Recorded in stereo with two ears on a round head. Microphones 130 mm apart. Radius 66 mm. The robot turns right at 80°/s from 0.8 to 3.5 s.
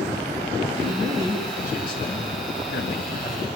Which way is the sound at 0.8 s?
75° right.